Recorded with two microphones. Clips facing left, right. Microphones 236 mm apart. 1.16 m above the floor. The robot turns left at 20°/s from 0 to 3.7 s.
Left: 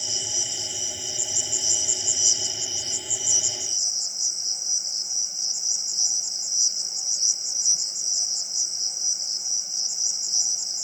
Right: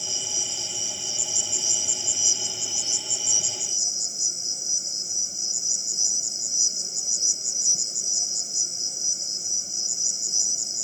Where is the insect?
70° right; by 10.8 s 140° right.